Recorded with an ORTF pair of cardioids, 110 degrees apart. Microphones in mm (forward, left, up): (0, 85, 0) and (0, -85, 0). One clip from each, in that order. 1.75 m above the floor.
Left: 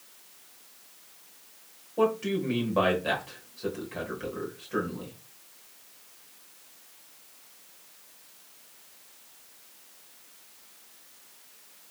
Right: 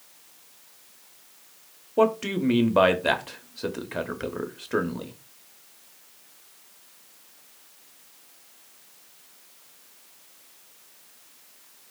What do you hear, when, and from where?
2.0 s a man speaking: 40° right, 0.8 m